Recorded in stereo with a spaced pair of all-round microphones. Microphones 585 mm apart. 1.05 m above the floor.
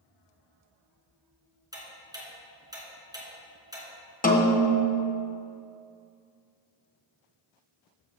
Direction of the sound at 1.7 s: 5° right (ahead or behind).